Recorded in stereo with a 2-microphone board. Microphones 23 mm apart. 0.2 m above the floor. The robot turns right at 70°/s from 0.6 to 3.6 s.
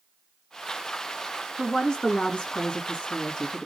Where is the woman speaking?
20° left, 2 m; by 3.7 s 160° left, 2 m.